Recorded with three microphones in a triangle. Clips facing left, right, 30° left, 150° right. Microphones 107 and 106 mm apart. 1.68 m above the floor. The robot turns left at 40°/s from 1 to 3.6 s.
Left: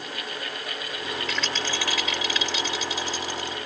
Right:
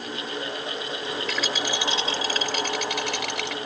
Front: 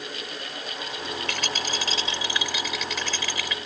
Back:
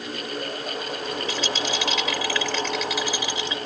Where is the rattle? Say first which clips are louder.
Right 3 dB, back 4 dB; straight ahead; by 3.6 s 90° right.